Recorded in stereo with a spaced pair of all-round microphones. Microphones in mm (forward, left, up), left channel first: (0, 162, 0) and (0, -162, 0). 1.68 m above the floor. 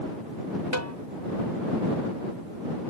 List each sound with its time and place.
0.7 s a snare drum: 55° right (ahead or behind)